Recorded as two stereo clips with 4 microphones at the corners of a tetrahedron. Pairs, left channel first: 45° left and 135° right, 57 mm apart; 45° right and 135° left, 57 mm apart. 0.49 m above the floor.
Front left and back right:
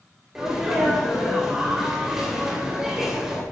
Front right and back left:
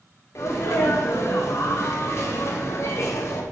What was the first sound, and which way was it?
A sneeze, 55° right.